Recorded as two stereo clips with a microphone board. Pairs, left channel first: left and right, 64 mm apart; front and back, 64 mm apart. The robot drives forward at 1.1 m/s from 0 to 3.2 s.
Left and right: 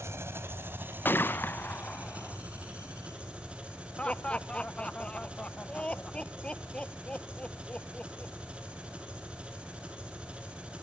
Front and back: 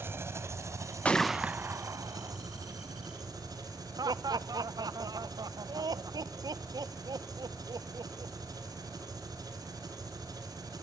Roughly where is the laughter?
Behind.